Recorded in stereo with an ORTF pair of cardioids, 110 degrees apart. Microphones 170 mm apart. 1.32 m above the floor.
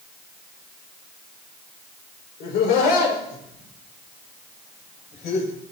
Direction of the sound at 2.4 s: 70° left.